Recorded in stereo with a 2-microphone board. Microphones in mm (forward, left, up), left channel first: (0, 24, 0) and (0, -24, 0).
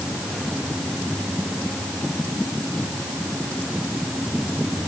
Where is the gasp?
No gasp in this recording.